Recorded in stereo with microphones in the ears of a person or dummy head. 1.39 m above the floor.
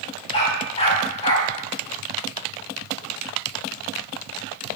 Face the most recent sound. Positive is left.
turn(degrees=35)  # may be behind; listen again after turning